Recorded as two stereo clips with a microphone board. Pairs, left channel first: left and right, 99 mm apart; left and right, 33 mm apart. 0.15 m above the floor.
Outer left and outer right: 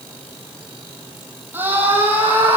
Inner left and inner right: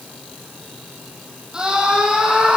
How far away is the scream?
About 5.5 m.